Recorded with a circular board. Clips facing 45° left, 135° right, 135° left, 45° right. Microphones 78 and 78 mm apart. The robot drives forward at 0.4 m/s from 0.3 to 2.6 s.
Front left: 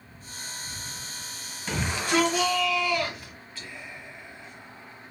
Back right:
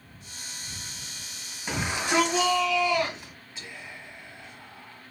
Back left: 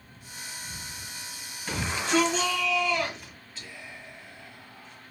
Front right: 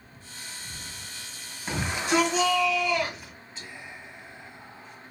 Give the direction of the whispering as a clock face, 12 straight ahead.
3 o'clock.